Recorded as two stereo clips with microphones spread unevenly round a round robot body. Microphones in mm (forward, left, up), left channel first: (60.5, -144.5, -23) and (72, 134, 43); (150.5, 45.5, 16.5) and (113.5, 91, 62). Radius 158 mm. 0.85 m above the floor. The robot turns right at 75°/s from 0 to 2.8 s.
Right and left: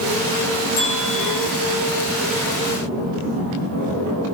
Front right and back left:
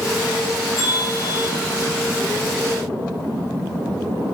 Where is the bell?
105° right, 6 m; by 1.5 s 55° right, 6 m.